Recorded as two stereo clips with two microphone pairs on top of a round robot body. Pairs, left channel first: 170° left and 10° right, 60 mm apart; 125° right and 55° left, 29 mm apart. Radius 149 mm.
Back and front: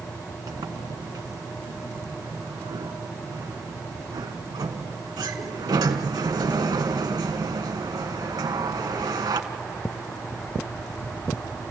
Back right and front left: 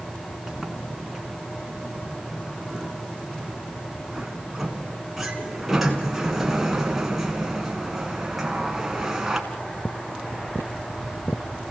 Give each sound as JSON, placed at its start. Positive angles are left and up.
{"t": 0.5, "sound": "a sliding door", "azimuth_deg": -25, "distance_m": 1.4}